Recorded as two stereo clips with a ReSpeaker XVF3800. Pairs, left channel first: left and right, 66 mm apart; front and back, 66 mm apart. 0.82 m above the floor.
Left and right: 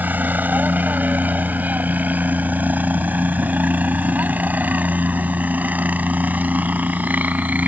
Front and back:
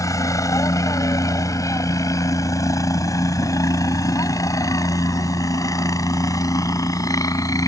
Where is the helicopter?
30° right; by 7.7 s 25° right.